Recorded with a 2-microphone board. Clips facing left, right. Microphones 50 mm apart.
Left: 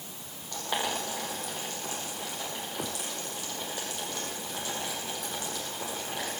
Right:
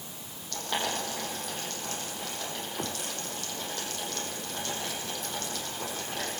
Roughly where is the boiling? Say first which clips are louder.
Even; centre.